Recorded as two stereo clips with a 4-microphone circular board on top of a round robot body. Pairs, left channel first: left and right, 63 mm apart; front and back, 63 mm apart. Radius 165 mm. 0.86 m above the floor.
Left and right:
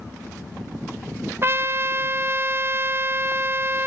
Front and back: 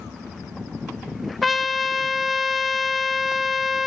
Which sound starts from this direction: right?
A trumpet, at 1.4 s.